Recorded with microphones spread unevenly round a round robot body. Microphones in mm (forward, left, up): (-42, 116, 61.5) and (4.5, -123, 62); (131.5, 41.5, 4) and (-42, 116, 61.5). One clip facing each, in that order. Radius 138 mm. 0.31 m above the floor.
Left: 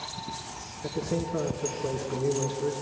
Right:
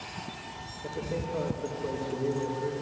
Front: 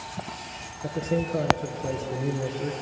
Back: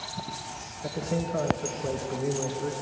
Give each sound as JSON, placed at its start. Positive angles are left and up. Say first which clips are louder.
{"t": 0.8, "sound": "a man speaking", "louder": "left 4 dB, front 3 dB", "azimuth_deg": 40, "distance_m": 3.5}